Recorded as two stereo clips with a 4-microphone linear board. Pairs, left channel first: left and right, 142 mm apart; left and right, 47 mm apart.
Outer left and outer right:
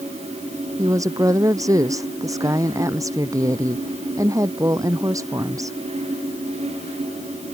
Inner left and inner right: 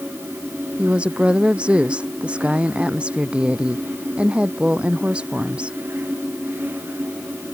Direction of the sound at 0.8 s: 25° right (ahead or behind).